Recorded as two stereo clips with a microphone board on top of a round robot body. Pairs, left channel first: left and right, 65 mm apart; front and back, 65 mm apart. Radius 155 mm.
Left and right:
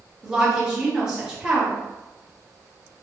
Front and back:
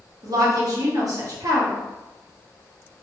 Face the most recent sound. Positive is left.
turn(degrees=-170)